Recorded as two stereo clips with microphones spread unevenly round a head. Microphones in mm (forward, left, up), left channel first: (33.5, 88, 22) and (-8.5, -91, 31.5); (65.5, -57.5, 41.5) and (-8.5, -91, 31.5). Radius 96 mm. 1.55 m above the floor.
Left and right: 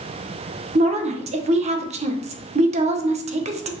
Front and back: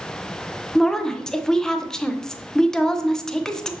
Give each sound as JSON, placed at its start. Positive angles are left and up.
{"t": 0.8, "sound": "a woman speaking", "azimuth_deg": -55, "distance_m": 0.8}